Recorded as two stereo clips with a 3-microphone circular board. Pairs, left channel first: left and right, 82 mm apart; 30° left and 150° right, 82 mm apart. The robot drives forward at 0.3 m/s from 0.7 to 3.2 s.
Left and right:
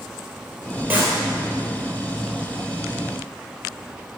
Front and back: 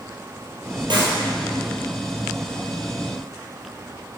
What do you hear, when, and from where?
0.9 s a clap: 155° right, 3.5 m